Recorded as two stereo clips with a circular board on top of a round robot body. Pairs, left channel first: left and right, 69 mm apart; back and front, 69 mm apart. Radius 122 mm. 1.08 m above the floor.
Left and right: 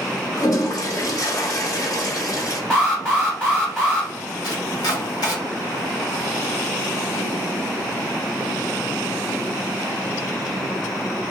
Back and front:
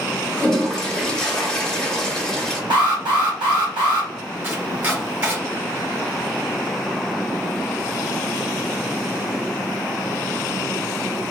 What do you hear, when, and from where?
0.4 s a toilet flushing: 100° left, 1.0 m
2.7 s an alarm: 10° left, 1.2 m
4.4 s chopping: 65° left, 1.2 m